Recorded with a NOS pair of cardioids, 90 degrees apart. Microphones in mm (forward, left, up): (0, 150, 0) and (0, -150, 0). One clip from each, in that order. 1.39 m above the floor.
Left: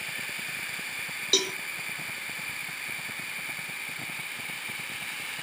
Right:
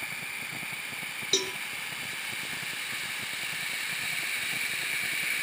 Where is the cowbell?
15° left, 1.0 m.